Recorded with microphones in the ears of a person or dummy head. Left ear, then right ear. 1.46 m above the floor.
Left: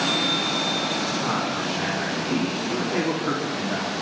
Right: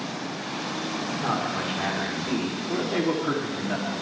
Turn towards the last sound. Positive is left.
turn(degrees=0)  # may be behind; listen again after turning